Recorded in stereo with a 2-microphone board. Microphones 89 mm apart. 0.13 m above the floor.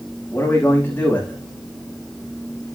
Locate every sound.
0.3 s a man speaking: 20° left (ahead or behind), 9 m